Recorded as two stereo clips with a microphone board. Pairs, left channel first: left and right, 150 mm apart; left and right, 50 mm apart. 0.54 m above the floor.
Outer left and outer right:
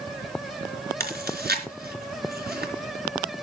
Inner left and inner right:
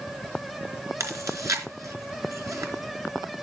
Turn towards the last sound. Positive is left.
turn(degrees=-80)